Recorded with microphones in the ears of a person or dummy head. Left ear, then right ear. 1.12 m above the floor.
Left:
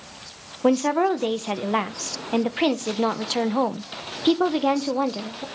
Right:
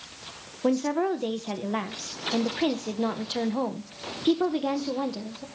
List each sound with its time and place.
0.6 s a woman speaking: 30° left (ahead or behind), 0.8 m